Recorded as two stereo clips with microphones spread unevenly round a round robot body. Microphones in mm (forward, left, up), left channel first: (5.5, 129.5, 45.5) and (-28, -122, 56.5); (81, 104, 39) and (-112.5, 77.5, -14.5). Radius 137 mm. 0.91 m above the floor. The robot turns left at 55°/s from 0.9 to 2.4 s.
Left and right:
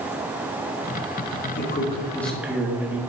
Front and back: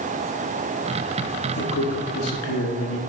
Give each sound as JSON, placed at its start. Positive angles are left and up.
{"t": 1.6, "sound": "a man speaking", "azimuth_deg": 35, "distance_m": 1.4}